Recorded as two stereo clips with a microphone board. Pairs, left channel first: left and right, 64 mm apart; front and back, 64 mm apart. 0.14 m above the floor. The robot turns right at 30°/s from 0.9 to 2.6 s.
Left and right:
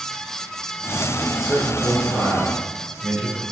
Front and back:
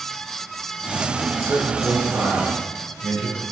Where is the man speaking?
Straight behind, 1.8 m; by 3.4 s 145° right, 1.8 m.